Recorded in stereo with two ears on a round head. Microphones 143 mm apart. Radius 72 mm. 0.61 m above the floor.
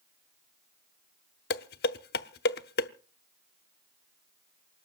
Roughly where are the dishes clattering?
Left.